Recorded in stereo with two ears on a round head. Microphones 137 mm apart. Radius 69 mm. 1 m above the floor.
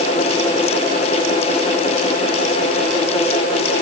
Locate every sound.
Only background noise.